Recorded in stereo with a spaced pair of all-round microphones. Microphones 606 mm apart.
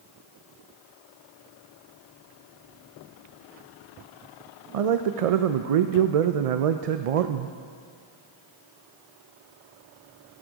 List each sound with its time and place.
4.7 s a man speaking: 70° right (ahead or behind), 0.5 m